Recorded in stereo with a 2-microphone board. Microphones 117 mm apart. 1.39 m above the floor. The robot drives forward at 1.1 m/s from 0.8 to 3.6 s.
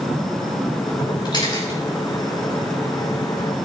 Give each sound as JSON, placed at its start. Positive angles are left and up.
{"t": 1.2, "sound": "a camera shutter", "side_deg": 40, "distance_m": 5.5}